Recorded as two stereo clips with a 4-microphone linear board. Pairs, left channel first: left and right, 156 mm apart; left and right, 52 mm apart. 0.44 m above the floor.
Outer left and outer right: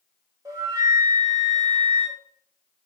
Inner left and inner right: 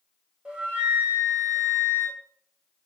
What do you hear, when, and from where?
0.5 s a flute: 20° right (ahead or behind), 2.5 m